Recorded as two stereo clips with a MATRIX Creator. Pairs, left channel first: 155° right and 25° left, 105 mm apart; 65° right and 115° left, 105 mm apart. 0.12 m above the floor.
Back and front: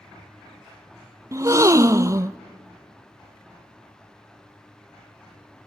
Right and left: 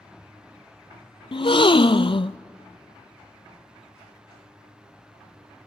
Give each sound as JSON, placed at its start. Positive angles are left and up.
{"t": 1.3, "sound": "a gasp", "azimuth_deg": -35, "distance_m": 0.5}